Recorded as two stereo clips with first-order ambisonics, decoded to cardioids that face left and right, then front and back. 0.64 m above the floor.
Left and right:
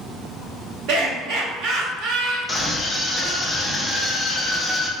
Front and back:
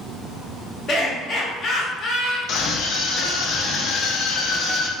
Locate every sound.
0.9 s laughter: 65° right, 1.2 m
2.5 s a scream: 15° left, 0.6 m